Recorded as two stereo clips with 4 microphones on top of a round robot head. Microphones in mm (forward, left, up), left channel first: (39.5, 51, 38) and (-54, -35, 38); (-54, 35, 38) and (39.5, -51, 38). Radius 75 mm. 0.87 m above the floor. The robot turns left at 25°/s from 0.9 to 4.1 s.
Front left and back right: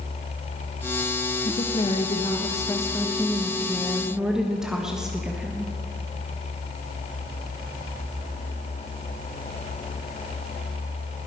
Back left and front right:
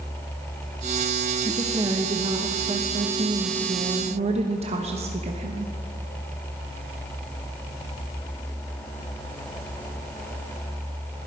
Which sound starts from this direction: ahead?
A woman speaking, at 1.4 s.